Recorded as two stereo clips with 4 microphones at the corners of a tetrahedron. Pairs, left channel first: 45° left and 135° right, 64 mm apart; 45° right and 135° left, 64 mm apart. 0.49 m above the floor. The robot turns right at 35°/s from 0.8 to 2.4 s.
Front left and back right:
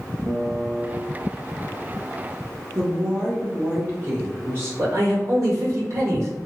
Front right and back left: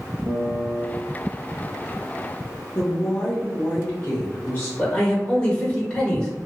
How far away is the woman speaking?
About 0.9 m.